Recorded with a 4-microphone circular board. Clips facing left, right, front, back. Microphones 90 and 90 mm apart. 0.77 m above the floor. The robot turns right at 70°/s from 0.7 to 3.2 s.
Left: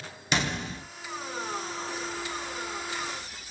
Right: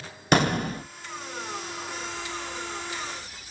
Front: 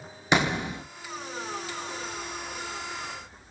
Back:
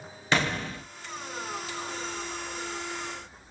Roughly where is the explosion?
Right.